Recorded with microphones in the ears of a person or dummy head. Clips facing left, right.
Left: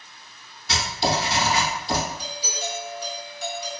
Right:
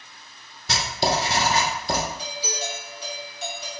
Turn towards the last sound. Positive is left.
turn(degrees=-15)  # may be behind; listen again after turning